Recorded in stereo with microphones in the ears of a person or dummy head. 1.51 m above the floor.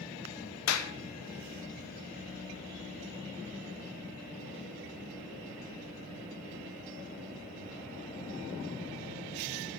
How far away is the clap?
About 0.7 m.